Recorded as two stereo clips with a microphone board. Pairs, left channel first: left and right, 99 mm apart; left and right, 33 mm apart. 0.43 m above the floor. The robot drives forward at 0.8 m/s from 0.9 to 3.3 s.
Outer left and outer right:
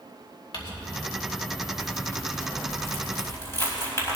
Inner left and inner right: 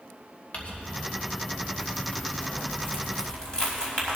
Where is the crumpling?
50° left (ahead or behind), 1.7 m; by 4.2 s 25° left (ahead or behind), 3 m.